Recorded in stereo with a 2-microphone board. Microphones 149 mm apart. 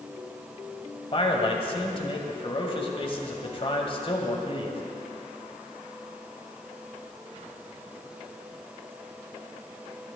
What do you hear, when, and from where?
1.1 s a man speaking: 40° left (ahead or behind), 1.5 m